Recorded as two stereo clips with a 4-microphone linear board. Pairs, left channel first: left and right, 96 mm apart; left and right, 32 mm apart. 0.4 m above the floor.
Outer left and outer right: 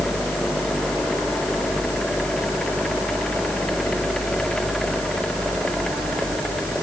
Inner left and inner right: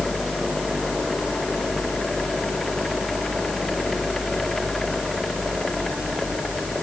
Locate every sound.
Only background noise.